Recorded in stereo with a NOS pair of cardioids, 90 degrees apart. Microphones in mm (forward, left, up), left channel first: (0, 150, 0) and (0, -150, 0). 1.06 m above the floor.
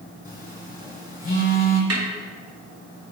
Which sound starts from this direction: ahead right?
A snare drum, at 1.9 s.